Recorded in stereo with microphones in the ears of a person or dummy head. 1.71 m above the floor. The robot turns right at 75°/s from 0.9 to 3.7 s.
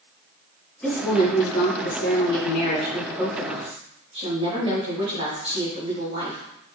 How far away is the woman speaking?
About 4.5 m.